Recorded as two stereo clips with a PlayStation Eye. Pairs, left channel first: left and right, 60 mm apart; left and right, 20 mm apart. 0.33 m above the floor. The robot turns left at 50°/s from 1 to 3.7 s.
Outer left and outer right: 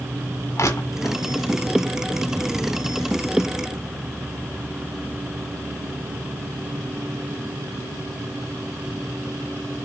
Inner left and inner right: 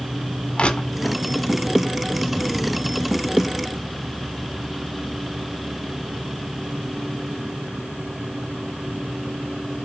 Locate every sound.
0.6 s crushing: 60° left (ahead or behind), 1.8 m; by 1.2 s 50° left (ahead or behind), 1.8 m